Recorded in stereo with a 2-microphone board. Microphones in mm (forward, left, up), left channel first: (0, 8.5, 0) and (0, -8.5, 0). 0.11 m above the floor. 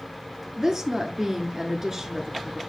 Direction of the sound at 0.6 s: 30° right (ahead or behind).